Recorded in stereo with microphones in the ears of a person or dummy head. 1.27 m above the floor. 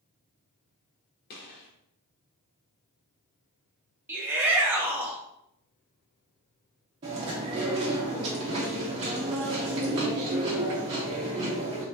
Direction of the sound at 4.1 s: 10° right (ahead or behind).